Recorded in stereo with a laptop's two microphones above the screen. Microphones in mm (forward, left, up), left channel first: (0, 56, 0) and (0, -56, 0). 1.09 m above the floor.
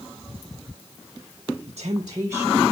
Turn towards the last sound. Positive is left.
turn(degrees=-5)  # may be behind; listen again after turning